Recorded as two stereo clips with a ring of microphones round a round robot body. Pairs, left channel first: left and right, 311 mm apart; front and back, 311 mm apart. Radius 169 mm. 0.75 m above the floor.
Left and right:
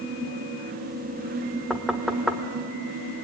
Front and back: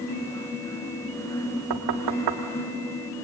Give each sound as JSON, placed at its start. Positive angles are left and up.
{"t": 1.7, "sound": "knocking", "azimuth_deg": 180, "distance_m": 1.4}